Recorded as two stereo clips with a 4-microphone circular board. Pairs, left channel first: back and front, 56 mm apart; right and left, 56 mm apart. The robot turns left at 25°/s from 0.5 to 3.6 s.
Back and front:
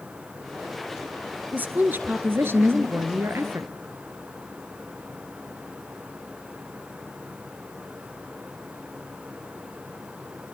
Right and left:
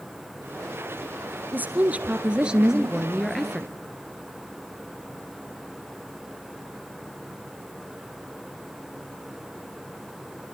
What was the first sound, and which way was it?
A woman speaking, 45° left.